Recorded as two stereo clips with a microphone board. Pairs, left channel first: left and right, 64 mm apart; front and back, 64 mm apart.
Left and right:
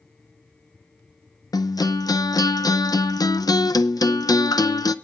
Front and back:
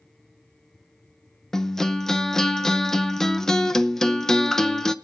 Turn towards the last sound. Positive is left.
turn(degrees=85)